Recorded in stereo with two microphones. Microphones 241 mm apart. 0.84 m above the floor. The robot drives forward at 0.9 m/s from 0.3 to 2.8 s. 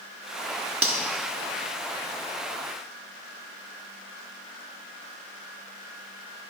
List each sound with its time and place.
0.8 s cutlery clinking: 60° right (ahead or behind), 0.9 m; by 1.0 s 55° right (ahead or behind), 1.0 m